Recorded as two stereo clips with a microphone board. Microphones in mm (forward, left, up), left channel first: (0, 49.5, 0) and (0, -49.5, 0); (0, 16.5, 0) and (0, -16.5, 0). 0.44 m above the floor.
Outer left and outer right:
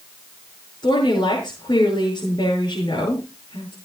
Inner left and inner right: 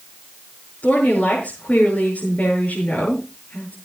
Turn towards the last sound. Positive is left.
turn(degrees=45)  # may be behind; listen again after turning